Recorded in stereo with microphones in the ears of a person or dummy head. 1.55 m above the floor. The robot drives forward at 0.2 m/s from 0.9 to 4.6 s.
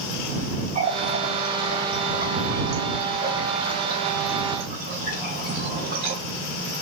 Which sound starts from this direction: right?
A running tap, at 0.8 s.